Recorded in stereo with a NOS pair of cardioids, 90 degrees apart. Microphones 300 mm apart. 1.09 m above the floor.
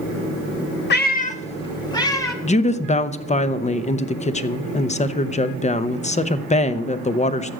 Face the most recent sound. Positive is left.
turn(degrees=25)